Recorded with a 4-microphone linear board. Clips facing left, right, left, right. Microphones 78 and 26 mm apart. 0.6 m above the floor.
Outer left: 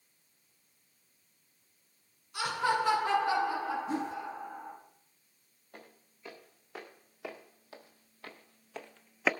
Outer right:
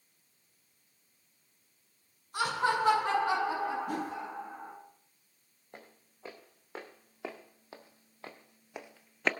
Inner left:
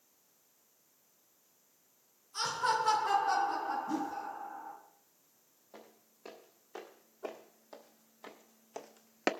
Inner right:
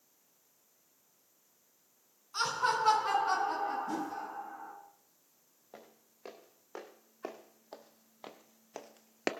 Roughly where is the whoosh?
Right.